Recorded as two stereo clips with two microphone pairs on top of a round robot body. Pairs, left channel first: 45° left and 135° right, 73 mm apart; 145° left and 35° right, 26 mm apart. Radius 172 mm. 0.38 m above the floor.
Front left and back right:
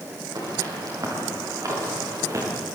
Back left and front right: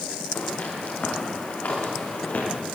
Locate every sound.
0.3 s footsteps: straight behind, 8.5 m; by 2.5 s 175° left, 8.5 m